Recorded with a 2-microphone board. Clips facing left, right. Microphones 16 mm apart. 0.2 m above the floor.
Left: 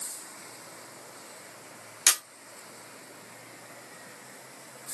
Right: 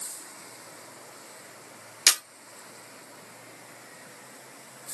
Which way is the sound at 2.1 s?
70° right (ahead or behind).